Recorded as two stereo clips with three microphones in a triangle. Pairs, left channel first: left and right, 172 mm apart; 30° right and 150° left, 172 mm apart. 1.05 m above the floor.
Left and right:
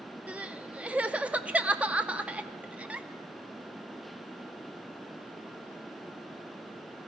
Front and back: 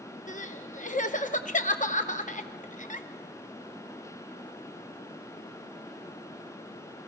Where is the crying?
10° right, 0.6 m.